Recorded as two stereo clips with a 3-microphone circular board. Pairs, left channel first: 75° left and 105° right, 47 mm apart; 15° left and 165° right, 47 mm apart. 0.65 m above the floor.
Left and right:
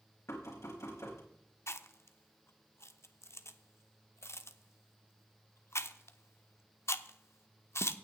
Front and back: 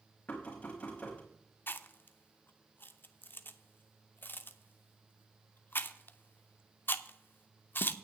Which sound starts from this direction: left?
Knocking, at 0.3 s.